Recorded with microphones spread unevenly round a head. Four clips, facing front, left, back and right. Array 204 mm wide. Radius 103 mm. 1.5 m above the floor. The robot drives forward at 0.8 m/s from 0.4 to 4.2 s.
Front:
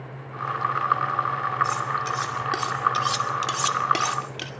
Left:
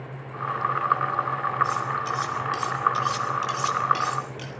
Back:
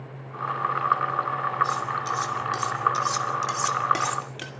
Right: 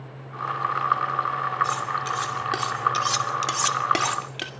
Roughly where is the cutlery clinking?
Ahead right.